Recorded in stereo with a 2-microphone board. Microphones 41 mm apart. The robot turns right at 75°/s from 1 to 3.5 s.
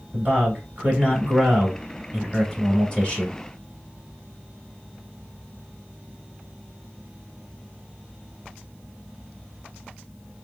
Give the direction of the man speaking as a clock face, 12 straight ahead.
3 o'clock.